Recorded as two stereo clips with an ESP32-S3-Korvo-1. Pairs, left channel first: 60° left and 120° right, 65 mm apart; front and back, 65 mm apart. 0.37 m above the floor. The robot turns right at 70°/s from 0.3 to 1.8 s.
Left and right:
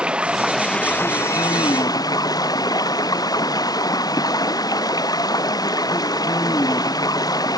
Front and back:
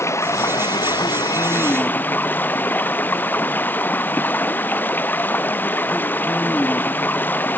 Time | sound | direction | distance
0.0 | running water | 45° right | ?